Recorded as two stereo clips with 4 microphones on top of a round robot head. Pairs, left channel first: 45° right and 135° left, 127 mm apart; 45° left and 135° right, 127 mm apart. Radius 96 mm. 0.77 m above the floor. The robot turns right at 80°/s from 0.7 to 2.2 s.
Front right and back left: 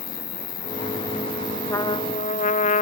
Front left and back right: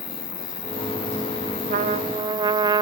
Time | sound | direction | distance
0.0 | an insect | 5° right | ?
1.7 | a trumpet | 120° right | ?